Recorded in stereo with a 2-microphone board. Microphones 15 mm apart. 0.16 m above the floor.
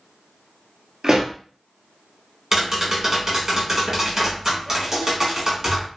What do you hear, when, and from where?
1.0 s a pop: 60° right (ahead or behind), 1.1 m
2.5 s tapping: 30° right (ahead or behind), 1.7 m